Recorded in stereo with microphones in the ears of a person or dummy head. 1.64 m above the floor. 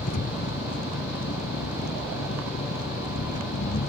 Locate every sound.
0.0 s an engine running: 45° left (ahead or behind)